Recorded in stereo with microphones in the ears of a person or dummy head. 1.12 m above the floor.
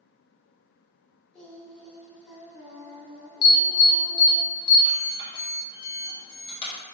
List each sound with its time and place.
1.3 s singing: 5° left (ahead or behind), 1.0 m
3.4 s an alarm: 25° left (ahead or behind), 0.9 m